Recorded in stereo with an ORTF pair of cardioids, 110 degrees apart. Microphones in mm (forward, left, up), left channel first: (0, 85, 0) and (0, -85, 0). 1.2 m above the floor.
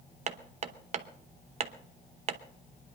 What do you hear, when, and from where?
0.3 s hammering: 40° right, 0.9 m